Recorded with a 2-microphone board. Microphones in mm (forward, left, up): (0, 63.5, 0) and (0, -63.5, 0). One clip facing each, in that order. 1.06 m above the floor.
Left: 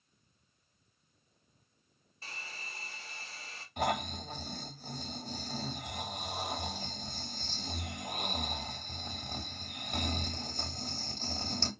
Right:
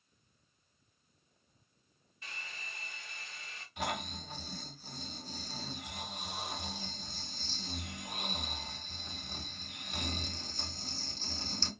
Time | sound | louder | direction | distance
2.2 | a hair dryer | left 1 dB | 35° left (ahead or behind) | 0.7 m
3.8 | snoring | left 6 dB | 50° left (ahead or behind) | 1.1 m